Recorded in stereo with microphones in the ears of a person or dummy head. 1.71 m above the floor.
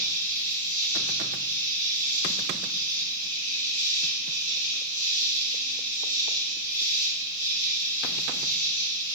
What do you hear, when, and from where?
0.0 s an insect: 65° left (ahead or behind), 5 m